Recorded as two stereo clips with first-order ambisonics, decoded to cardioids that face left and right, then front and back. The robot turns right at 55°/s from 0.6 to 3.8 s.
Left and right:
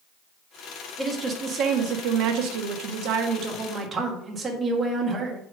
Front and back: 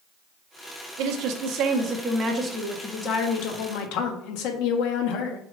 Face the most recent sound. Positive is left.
turn(degrees=-20)